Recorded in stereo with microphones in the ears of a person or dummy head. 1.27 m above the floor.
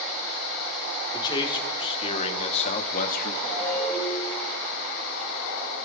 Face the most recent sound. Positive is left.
turn(degrees=15)  # may be behind; listen again after turning